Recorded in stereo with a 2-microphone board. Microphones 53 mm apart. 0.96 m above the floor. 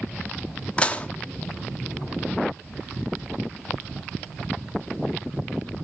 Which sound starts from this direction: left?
Dishes clattering, at 0.8 s.